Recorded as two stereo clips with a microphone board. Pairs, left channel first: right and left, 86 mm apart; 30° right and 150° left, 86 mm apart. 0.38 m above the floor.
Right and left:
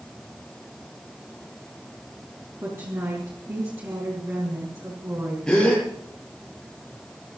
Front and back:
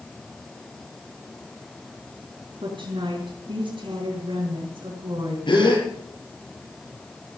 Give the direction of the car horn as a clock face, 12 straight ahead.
I don't hear a car horn.